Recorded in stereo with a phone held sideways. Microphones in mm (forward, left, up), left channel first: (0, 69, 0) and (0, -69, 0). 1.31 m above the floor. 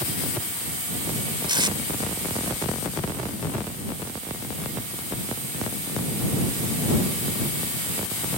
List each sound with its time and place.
1.5 s tape being pulled: 35° right (ahead or behind)